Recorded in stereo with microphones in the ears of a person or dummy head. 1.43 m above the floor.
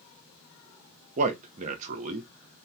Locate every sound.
1.2 s a man speaking: 45° right (ahead or behind), 0.6 m